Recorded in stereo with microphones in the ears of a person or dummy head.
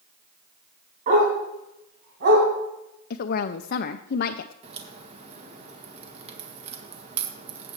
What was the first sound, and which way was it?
A dog barking, 45° right (ahead or behind).